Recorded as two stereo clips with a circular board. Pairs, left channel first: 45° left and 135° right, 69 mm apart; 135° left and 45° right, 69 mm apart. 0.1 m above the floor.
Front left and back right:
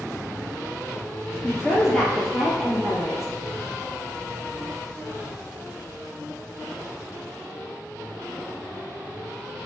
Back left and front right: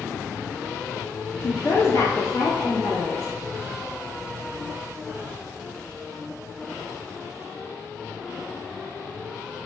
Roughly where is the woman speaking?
Behind left.